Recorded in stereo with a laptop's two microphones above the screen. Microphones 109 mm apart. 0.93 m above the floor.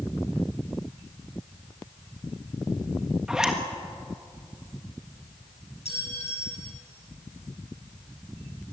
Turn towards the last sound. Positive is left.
turn(degrees=75)  # may be behind; listen again after turning